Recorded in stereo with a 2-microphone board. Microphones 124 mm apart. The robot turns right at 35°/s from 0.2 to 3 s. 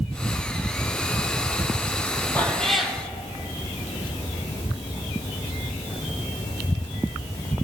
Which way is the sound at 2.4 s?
15° left (ahead or behind).